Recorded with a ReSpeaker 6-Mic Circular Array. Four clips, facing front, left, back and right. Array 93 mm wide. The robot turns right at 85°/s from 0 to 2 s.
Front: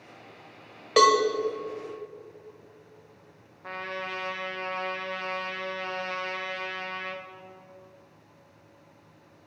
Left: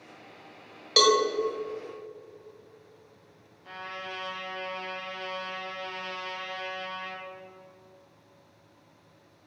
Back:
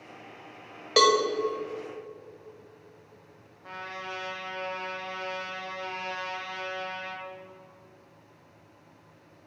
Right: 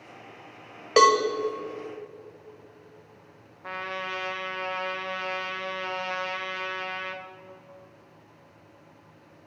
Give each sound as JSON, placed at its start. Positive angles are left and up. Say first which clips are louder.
{"t": 1.0, "sound": "a cowbell", "louder": "right 4 dB, front 2 dB", "azimuth_deg": -80, "distance_m": 1.2}
{"t": 3.6, "sound": "a trumpet", "louder": "right 6 dB, front 3 dB", "azimuth_deg": -70, "distance_m": 1.4}